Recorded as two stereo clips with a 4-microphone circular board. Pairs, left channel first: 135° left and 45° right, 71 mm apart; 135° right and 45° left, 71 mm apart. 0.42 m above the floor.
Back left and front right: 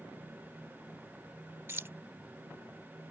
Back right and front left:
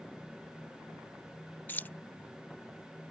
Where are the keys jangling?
85° right.